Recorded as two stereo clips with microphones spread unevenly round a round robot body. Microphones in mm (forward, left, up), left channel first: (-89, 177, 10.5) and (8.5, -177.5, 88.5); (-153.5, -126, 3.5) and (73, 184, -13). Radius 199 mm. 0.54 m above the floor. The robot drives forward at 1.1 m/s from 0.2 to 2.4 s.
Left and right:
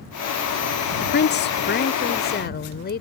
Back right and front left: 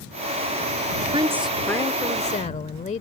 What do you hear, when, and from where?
1.0 s a woman speaking: 105° left; by 3.0 s 160° left